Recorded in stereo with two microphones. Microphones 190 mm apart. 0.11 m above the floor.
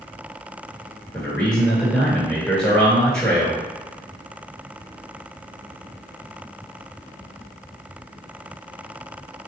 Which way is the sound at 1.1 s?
5° left (ahead or behind).